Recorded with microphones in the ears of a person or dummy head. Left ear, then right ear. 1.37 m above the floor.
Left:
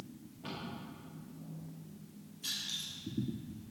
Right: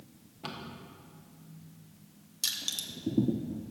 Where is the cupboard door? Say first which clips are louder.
Right 2 dB; 50° right (ahead or behind), 1.7 m.